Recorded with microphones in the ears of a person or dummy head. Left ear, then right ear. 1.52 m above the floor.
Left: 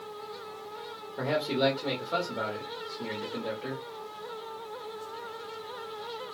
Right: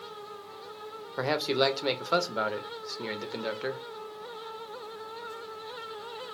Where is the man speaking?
65° right (ahead or behind), 0.6 m.